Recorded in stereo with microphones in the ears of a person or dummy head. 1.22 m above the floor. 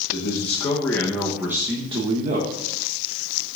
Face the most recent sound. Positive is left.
turn(degrees=-50)  # may be behind; listen again after turning